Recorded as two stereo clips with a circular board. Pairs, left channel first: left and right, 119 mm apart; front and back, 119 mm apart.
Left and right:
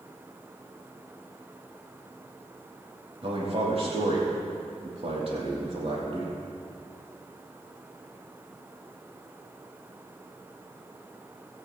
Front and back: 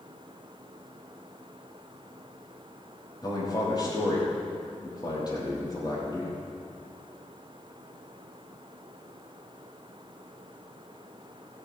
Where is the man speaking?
55° right, 5.5 m.